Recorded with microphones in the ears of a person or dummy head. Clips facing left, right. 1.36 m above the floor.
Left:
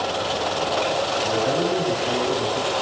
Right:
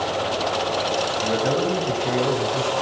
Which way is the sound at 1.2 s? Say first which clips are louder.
Right 1 dB; 45° right (ahead or behind).